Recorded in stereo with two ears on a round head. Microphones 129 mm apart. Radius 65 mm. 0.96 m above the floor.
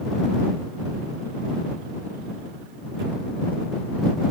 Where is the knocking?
No knocking in this recording.